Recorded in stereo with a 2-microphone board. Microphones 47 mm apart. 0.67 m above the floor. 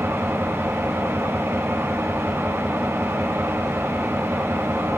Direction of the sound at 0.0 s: 75° right (ahead or behind).